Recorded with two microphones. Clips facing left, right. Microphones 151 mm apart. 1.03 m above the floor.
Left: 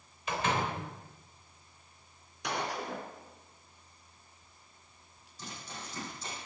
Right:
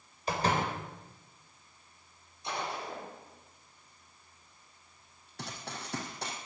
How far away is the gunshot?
About 3 m.